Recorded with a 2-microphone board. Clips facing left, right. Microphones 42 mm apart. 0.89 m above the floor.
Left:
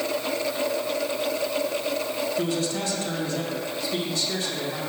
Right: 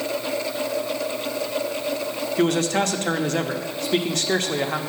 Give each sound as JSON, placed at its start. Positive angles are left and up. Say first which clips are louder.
{"t": 2.4, "sound": "a man speaking", "louder": "right 11 dB", "side_deg": -65, "distance_m": 0.8}